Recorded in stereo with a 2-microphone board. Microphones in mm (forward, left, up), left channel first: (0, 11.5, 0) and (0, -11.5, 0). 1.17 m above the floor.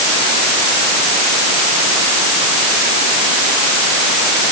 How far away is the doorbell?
No doorbell in this recording.